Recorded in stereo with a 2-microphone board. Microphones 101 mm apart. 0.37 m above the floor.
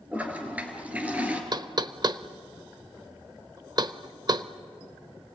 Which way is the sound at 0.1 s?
15° right (ahead or behind).